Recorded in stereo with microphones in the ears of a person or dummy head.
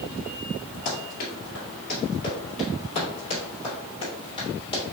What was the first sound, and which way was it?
Running footsteps, 35° left (ahead or behind).